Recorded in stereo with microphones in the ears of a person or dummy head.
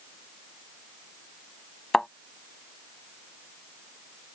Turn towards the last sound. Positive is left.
turn(degrees=0)  # may be behind; listen again after turning